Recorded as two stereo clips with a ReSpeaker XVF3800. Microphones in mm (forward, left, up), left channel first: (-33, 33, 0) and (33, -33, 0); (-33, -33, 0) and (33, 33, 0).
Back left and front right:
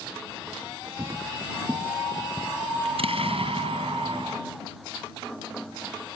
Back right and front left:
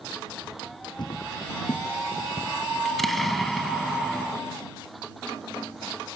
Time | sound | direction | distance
1.0 | footsteps | 100° right | ?
2.9 | an explosion | 45° right | ?